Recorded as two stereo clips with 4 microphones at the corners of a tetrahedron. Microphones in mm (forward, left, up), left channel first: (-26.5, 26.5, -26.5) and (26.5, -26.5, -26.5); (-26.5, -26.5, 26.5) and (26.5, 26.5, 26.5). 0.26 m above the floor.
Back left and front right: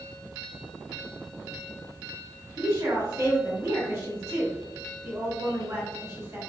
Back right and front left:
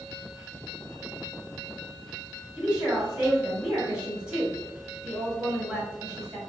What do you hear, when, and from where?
2.6 s a woman speaking: 25° right, 1.7 m